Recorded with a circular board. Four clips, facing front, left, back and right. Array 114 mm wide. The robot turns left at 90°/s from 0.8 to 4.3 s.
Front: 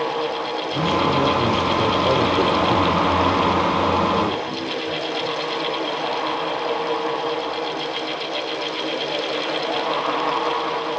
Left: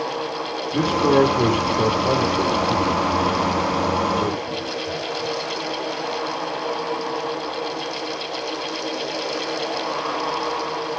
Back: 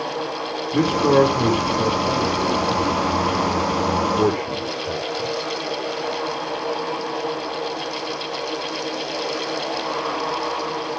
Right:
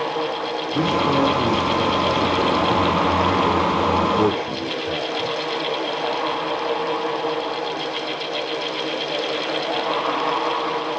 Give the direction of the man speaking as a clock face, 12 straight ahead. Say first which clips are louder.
Left 3 dB, back 4 dB; 7 o'clock.